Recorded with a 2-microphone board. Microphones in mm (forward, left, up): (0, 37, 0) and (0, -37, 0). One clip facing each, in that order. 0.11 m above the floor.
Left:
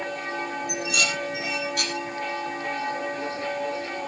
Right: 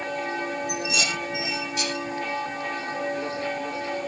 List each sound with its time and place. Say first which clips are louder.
0.7 s dishes clattering: even; 55° left (ahead or behind), 3.5 m